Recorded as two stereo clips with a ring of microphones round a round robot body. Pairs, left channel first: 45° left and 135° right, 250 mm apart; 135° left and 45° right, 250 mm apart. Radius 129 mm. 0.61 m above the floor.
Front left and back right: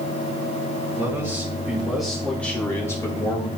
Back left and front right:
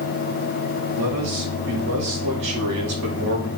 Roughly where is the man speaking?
Ahead right.